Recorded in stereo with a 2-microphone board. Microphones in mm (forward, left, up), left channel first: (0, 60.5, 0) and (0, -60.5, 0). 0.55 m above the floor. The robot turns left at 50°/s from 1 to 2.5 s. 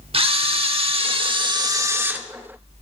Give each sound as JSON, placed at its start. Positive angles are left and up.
{"t": 0.1, "sound": "a camera shutter", "azimuth_deg": -105, "distance_m": 0.9}